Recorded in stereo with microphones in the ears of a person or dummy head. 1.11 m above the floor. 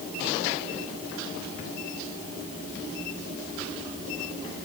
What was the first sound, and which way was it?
Only background noise.